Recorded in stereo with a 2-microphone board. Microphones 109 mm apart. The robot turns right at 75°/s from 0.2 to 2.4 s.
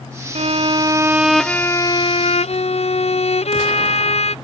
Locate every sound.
0.3 s a violin: 75° right; by 4.3 s 80° left